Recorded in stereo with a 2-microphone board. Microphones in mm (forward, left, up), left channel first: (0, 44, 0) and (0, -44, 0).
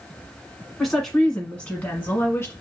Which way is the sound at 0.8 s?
Centre (ahead or behind).